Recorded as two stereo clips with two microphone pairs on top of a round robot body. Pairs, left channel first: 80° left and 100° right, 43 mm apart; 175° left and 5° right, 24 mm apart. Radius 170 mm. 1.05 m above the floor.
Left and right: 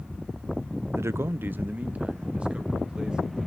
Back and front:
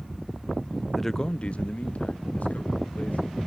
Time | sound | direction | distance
0.9 | a man speaking | 95° right | 0.6 m